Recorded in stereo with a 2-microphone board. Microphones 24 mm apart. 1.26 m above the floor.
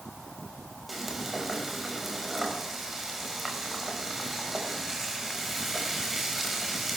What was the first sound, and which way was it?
Frying, 10° right (ahead or behind).